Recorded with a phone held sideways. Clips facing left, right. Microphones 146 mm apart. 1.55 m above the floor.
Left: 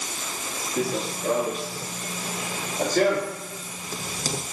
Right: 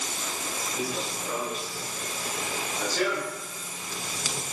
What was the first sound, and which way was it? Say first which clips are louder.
Running footsteps: left 7 dB; 70° left (ahead or behind).